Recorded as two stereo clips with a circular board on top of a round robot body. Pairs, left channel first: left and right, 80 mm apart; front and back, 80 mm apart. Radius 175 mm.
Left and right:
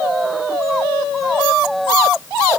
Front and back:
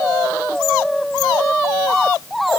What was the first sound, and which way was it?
Only background noise.